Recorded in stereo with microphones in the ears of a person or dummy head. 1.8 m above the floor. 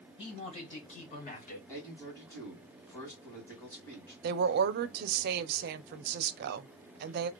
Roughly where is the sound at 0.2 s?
Left.